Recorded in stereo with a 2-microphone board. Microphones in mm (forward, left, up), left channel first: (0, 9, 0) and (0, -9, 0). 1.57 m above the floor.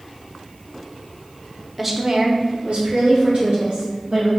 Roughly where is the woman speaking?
Centre.